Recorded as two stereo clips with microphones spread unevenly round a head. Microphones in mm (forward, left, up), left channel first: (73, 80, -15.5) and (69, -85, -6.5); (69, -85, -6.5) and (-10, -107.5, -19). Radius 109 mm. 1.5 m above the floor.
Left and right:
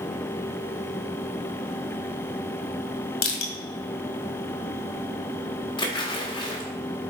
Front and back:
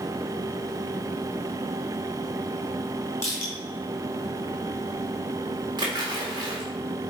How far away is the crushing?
About 1.7 m.